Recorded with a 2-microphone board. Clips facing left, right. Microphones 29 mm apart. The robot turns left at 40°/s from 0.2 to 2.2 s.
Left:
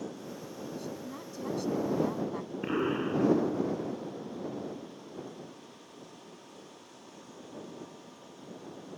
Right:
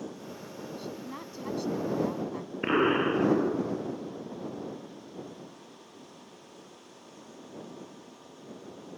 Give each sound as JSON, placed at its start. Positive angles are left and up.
{"t": 0.8, "sound": "a woman speaking", "azimuth_deg": -135}
{"t": 2.6, "sound": "an explosion", "side_deg": -40}